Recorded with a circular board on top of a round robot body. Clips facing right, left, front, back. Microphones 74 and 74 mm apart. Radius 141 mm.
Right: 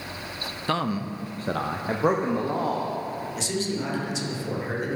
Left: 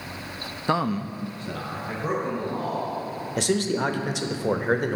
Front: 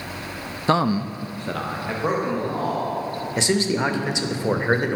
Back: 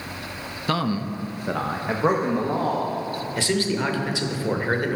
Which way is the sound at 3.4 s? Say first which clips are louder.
Left 7 dB, front 3 dB; 65° left.